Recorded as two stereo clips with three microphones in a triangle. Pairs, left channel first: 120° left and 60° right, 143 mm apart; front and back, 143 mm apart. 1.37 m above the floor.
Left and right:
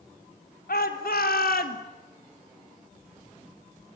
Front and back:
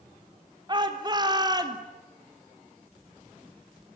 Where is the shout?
120° left, 3.5 m; by 1.8 s 115° left, 2.5 m.